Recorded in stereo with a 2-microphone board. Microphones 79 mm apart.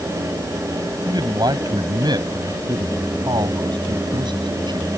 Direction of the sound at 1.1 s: 65° right (ahead or behind).